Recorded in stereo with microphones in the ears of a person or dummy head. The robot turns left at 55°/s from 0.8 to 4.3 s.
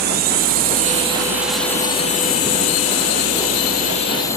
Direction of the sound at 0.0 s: 45° right (ahead or behind).